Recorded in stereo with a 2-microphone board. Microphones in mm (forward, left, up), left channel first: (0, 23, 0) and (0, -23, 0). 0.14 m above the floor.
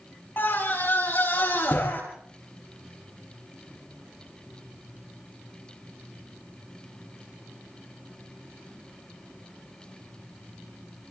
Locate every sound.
0.4 s a scream: 55° left (ahead or behind), 8.5 m